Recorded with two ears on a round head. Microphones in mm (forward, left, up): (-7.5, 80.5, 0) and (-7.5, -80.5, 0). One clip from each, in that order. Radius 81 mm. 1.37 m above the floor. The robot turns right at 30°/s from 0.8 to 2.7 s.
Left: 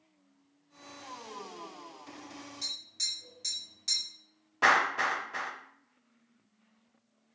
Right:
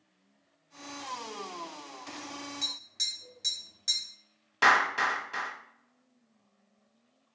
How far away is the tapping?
About 1.7 m.